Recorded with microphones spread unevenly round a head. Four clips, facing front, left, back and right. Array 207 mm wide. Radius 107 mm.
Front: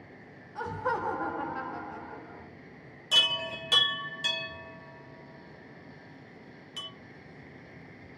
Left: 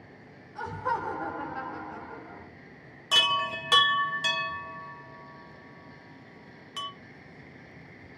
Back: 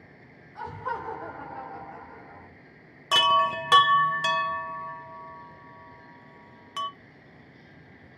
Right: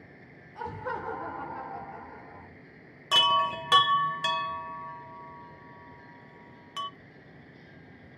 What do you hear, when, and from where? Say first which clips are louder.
0.6 s laughter: left 4 dB, front 2 dB; 30° right, 1.8 m; by 2.5 s 75° left, 1.9 m
3.1 s a chime: right 4 dB, back 13 dB; 170° left, 1.1 m